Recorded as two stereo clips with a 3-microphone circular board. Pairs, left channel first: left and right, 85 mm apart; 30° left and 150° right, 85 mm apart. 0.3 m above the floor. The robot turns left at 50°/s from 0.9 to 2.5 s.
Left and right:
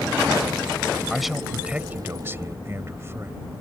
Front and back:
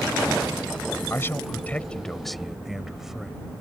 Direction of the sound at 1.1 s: 5° left.